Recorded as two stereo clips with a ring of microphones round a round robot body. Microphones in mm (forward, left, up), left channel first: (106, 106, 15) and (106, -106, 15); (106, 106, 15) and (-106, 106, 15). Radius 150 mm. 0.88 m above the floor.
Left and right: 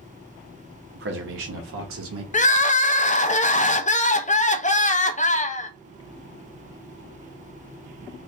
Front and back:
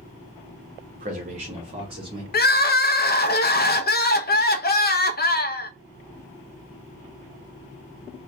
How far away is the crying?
About 0.6 m.